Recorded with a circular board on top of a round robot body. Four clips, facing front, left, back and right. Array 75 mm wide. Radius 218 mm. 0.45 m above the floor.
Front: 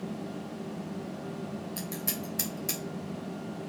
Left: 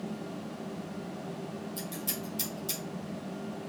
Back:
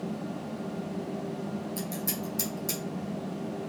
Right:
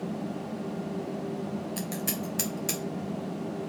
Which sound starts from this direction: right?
Scissors, at 1.8 s.